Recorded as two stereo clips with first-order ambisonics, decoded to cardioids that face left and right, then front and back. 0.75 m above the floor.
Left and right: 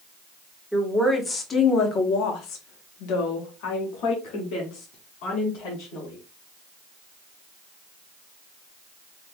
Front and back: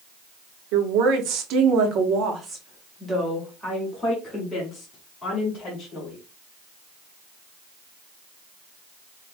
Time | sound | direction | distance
0.7 | a woman speaking | 175° left | 1.4 m